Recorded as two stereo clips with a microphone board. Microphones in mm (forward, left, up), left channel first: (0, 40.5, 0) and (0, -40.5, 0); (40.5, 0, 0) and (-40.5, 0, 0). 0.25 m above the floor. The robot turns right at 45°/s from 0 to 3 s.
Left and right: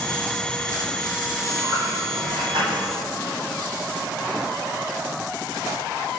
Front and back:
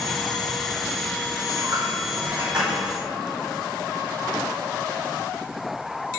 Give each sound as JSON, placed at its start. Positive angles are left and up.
{"t": 1.4, "sound": "a dropped coin", "azimuth_deg": -155, "distance_m": 3.0}